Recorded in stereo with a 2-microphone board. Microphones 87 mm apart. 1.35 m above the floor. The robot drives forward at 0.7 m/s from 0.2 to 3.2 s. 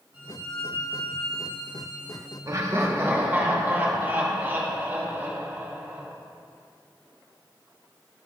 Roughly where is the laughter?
Right.